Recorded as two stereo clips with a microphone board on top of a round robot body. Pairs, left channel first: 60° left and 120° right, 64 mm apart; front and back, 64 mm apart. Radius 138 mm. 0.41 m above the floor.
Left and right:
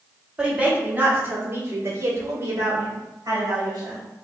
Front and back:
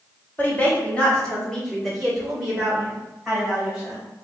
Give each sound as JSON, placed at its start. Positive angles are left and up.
{"t": 0.4, "sound": "a woman speaking", "azimuth_deg": -50, "distance_m": 1.7}